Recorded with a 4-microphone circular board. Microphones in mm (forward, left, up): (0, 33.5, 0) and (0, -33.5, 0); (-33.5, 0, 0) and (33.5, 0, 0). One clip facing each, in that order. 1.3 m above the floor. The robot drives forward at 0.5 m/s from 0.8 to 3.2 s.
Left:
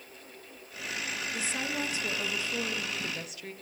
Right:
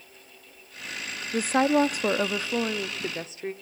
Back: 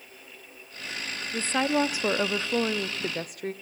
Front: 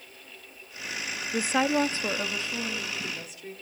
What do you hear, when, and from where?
1.3 s a woman speaking: 70° right, 0.6 m; by 3.5 s 150° right, 0.9 m